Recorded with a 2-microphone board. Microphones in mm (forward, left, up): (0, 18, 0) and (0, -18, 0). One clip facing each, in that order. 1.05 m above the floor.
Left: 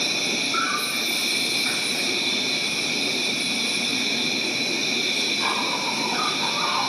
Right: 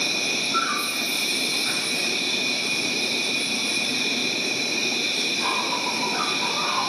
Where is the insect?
20° left (ahead or behind), 3 m.